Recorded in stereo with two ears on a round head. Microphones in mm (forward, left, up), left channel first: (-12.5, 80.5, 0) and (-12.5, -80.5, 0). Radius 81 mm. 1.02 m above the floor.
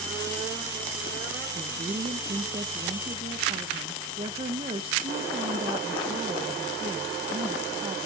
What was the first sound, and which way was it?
A woman speaking, 35° right (ahead or behind).